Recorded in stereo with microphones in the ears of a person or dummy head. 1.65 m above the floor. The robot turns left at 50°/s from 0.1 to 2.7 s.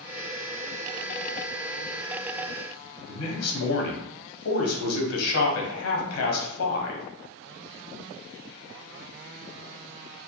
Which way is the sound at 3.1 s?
85° left.